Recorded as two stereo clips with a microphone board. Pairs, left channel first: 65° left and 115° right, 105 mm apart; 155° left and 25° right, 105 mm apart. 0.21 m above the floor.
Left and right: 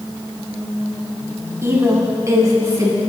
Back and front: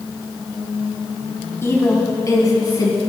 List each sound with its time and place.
1.6 s a woman speaking: 155° right, 1.7 m; by 3.0 s 165° right, 2.5 m